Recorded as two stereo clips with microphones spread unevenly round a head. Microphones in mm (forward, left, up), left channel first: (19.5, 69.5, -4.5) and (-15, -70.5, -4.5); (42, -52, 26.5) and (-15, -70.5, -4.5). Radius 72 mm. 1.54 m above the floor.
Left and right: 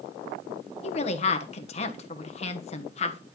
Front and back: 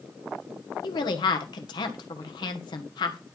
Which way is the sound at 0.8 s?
30° left.